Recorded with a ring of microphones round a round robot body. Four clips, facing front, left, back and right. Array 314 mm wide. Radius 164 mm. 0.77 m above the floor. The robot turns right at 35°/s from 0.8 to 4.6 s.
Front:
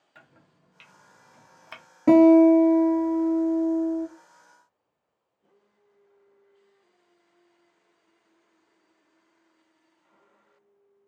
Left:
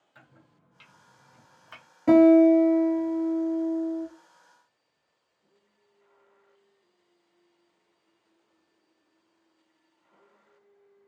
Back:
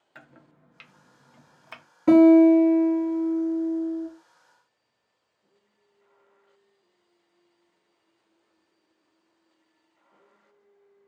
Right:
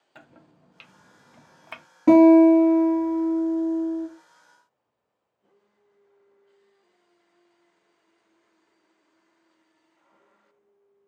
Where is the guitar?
50° right, 1.4 m; by 4.1 s 20° left, 1.4 m.